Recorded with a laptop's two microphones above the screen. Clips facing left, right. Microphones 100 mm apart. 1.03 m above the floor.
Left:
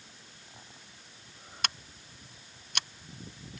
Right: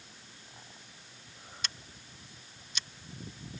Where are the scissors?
65° left (ahead or behind).